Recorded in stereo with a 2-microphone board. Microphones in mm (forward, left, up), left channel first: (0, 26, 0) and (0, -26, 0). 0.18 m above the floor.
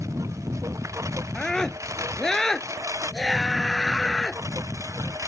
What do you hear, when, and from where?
0.0 s a lawn mower: 85° right
1.4 s a scream: 10° left (ahead or behind)